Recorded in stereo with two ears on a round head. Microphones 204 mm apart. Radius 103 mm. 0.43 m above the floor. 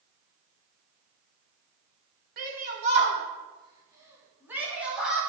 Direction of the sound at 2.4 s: 40° right (ahead or behind).